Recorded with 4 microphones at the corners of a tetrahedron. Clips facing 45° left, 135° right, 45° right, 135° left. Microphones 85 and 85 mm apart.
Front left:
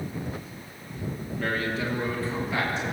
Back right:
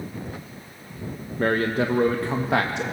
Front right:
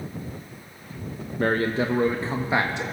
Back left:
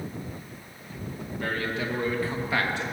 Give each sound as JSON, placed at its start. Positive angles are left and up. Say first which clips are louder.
{"t": 1.4, "sound": "a man speaking", "louder": "back right 7 dB, front right 7 dB", "azimuth_deg": -90, "distance_m": 1.0}